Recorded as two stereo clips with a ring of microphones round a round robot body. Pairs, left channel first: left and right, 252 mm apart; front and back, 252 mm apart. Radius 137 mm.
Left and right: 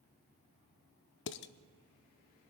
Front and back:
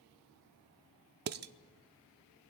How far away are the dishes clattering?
About 0.5 m.